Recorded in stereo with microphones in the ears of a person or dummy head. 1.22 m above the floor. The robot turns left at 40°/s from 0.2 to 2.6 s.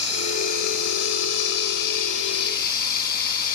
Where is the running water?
150° left, 3.5 m; by 3.6 s 55° left, 3.5 m.